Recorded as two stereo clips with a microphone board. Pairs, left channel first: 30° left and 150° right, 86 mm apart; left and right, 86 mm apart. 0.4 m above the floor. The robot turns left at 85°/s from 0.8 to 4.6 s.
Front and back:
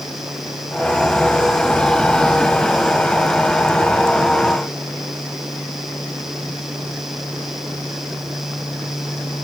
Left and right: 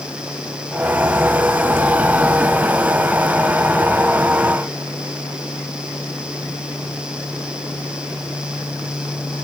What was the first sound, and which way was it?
Only background noise.